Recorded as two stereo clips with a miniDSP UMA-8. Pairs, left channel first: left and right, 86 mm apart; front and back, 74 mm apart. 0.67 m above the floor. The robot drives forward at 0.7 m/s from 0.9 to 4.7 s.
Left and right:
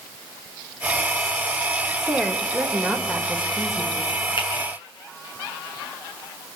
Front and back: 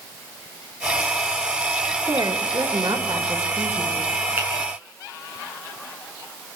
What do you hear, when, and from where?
2.1 s a woman speaking: 165° left, 1.4 m; by 4.1 s 175° left, 2.5 m
4.4 s a finger snap: 115° left, 7 m